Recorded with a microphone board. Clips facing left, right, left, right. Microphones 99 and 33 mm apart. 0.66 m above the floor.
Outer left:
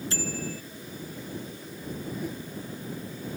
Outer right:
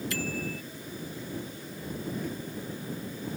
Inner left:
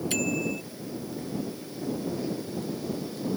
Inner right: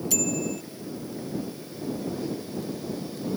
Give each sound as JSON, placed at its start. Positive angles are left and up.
{"t": 0.1, "sound": "a bicycle bell", "side_deg": 30}
{"t": 2.1, "sound": "a whoosh", "side_deg": 10}